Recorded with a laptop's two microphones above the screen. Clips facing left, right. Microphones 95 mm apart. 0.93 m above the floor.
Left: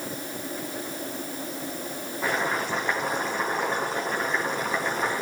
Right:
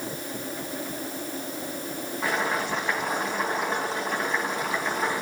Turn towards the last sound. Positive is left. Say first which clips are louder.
# even
turn(degrees=5)  # may be behind; listen again after turning